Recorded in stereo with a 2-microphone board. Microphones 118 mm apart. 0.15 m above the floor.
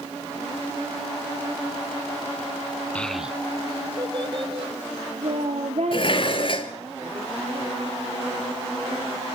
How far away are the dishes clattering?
About 1.6 m.